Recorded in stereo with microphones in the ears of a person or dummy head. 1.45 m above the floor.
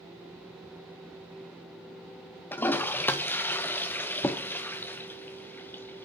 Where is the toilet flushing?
15° left (ahead or behind), 0.6 m.